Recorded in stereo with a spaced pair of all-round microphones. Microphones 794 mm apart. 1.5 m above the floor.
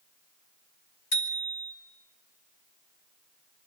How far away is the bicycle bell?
About 2.5 m.